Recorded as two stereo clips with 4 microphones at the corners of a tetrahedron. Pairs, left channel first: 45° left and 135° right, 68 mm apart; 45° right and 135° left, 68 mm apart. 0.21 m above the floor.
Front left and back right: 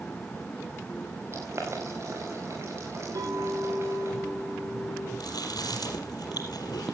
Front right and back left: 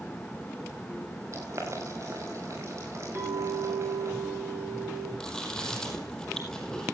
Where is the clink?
165° right, 7.5 m.